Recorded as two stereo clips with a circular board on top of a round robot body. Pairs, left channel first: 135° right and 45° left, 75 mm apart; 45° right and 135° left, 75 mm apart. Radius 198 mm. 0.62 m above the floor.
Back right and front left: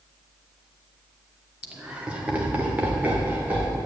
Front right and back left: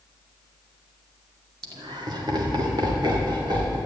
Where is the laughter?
120° left, 2.5 m; by 3.8 s 110° left, 4 m.